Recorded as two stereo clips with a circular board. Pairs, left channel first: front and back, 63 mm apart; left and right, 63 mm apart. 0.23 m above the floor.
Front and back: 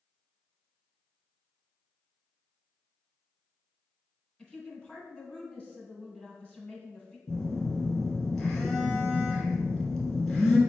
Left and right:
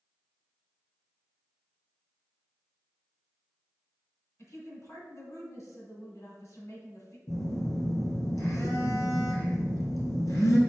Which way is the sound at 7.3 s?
80° left.